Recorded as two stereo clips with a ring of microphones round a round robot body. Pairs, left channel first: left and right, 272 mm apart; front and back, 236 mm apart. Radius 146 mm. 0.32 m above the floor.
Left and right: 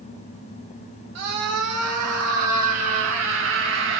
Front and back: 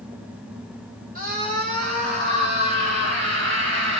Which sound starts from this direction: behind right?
A scream, at 1.1 s.